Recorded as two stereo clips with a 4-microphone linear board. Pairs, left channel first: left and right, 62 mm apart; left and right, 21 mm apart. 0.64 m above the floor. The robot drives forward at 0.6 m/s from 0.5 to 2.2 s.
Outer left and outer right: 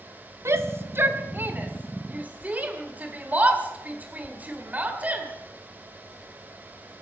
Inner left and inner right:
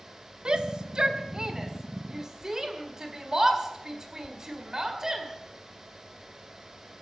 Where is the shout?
45° right (ahead or behind), 1.3 m; by 5.3 s 25° right (ahead or behind), 2.0 m.